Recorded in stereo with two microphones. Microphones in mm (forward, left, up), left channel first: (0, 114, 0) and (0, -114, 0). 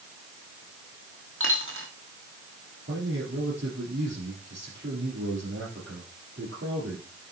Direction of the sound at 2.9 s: 50° right (ahead or behind).